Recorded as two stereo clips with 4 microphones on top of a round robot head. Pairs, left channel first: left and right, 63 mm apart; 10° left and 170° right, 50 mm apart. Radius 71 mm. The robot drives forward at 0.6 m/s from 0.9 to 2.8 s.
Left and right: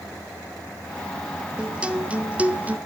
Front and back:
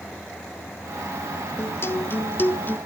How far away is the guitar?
About 1.8 m.